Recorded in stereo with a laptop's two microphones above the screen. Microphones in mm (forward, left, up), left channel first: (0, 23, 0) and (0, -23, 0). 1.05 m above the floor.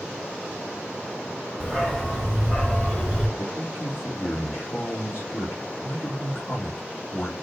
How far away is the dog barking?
About 1.3 m.